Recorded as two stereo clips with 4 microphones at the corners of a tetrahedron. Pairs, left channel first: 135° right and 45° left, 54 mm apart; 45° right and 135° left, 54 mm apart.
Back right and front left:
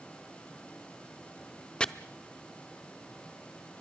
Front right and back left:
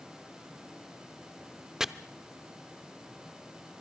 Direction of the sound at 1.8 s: 160° right.